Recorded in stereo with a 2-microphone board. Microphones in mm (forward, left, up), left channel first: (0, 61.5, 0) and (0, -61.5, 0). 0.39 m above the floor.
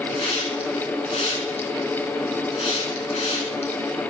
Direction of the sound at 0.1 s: 60° left (ahead or behind).